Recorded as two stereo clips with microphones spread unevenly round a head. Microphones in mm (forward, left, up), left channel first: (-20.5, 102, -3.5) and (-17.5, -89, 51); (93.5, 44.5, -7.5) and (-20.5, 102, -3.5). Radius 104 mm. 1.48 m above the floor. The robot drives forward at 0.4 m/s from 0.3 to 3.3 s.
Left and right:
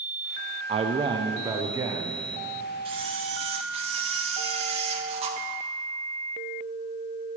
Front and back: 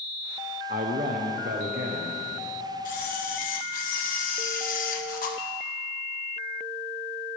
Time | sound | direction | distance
0.7 | a man speaking | 150° right | 0.6 m
2.9 | a camera shutter | 20° right | 1.5 m